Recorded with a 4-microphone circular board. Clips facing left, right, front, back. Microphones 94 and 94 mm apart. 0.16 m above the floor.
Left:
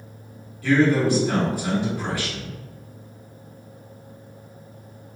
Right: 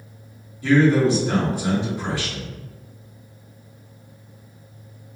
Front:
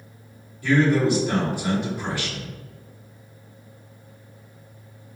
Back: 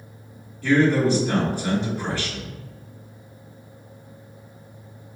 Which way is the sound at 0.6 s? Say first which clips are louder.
Right 2 dB, back 1 dB; 60° right.